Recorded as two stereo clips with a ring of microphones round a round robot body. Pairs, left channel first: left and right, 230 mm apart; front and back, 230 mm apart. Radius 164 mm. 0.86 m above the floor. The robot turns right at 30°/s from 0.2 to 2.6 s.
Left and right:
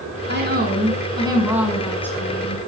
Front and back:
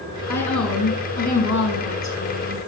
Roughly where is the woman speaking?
Ahead right.